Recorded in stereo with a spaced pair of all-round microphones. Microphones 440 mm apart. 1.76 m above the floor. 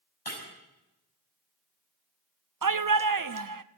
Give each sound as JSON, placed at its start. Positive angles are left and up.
{"t": 0.2, "sound": "breaking glass", "side_deg": 60, "distance_m": 6.0}
{"t": 2.6, "sound": "a shout", "side_deg": -50, "distance_m": 0.6}